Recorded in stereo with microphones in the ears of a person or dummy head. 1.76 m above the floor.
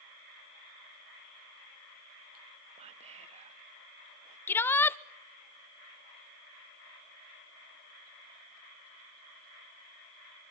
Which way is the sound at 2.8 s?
35° right (ahead or behind).